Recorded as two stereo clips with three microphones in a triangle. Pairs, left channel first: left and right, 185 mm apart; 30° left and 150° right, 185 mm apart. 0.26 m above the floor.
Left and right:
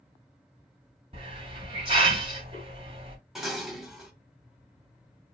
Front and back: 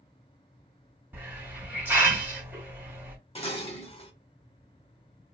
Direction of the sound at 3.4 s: 5° right.